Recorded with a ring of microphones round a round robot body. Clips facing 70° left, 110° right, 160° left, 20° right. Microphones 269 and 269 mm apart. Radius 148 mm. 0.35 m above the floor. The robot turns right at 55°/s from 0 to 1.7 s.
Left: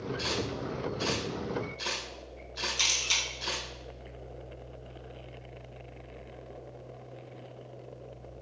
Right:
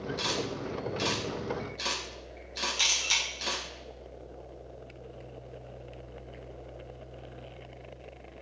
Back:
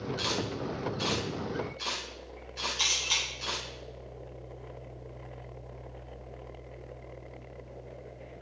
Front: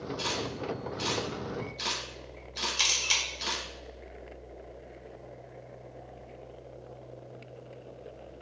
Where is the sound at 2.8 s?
20° right, 1.3 m.